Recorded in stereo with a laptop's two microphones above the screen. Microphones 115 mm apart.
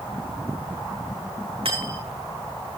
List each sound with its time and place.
1.6 s cutlery clinking: 65° right (ahead or behind), 5 m